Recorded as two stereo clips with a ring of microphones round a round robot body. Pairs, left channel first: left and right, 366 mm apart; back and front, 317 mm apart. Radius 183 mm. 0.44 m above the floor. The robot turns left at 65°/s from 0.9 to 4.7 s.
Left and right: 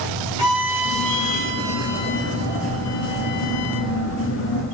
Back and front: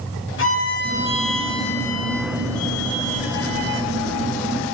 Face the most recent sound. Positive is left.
turn(degrees=-10)